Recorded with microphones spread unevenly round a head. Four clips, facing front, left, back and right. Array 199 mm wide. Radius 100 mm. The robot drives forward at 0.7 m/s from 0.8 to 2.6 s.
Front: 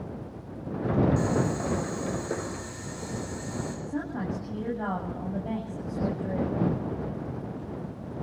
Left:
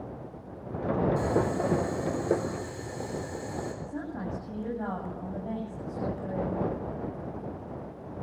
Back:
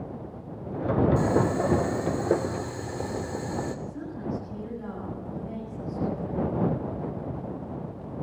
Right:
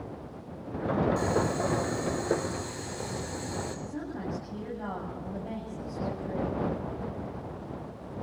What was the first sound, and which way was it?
Boiling, 175° left.